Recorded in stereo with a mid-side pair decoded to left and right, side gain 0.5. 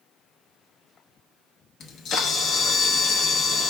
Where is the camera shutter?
60° left, 1.1 m.